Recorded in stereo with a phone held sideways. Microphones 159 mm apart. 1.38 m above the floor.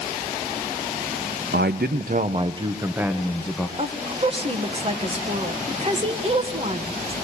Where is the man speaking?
85° right, 0.7 m; by 3.7 s 5° left (ahead or behind), 1.4 m.